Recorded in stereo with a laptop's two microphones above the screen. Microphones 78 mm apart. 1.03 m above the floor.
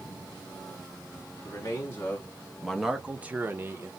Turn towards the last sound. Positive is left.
turn(degrees=-30)  # may be behind; listen again after turning